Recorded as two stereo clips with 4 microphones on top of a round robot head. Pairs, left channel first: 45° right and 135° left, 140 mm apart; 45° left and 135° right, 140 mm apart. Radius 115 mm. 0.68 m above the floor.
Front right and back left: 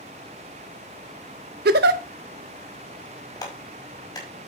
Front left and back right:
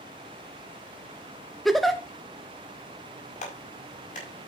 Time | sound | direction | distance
1.6 | a giggle | 135° left | 0.6 m
3.4 | a clap | 15° left | 5.5 m